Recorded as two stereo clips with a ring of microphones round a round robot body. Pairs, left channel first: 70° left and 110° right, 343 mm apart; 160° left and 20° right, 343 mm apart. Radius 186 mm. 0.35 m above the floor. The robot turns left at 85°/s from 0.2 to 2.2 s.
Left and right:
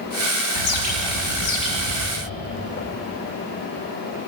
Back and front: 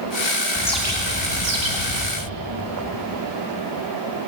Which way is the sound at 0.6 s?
85° left.